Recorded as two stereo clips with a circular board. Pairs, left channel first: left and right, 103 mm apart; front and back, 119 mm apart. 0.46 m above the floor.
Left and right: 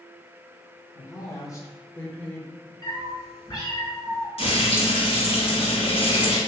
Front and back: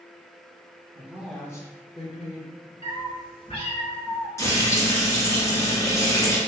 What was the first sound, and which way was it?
A woman speaking, 135° left.